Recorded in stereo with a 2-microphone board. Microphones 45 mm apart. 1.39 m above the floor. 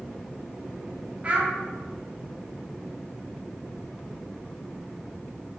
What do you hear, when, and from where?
1.2 s a child speaking: 30° right (ahead or behind), 0.5 m